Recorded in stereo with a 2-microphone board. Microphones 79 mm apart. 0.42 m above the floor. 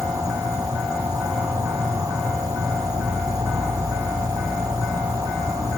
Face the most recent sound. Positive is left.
turn(degrees=-65)  # may be behind; listen again after turning